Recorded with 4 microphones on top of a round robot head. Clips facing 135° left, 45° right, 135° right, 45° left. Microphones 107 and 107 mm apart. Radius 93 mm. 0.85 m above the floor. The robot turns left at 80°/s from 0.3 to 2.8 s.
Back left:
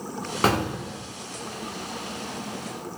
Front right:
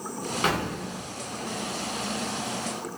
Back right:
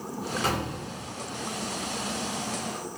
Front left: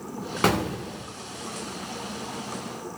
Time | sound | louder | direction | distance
0.4 | an explosion | back left 5 dB, front left 9 dB | 80° left | 0.7 m